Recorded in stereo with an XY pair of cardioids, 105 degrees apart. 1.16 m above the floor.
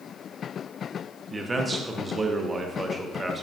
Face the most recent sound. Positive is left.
turn(degrees=-25)